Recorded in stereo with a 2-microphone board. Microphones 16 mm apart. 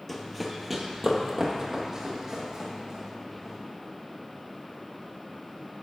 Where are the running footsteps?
Centre (ahead or behind), 0.8 m; by 3.5 s 40° right (ahead or behind), 2.5 m.